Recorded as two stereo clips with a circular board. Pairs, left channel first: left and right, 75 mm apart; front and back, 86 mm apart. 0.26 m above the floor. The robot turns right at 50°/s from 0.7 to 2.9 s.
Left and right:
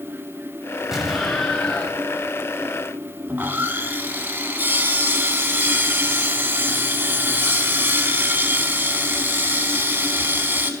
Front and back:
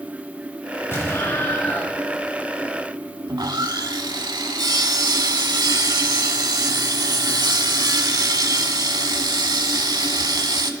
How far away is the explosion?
About 1.2 m.